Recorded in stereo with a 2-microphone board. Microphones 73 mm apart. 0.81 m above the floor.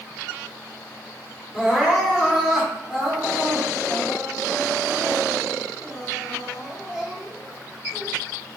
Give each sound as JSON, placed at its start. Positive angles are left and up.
{"t": 1.5, "sound": "crying", "side_deg": -10, "distance_m": 2.5}